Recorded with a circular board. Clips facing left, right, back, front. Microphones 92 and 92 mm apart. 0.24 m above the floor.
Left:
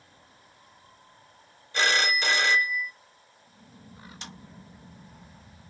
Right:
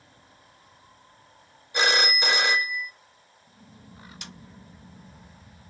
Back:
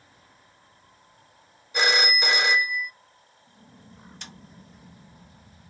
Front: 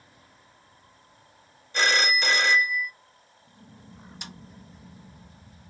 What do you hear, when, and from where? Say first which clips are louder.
1.7 s a phone ringing: right 1 dB, even; 125° right, 0.5 m
4.2 s a snare drum: left 2 dB, front 3 dB; 70° left, 1.6 m